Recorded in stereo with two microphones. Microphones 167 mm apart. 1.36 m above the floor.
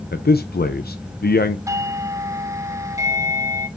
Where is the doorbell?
20° right (ahead or behind), 1.0 m.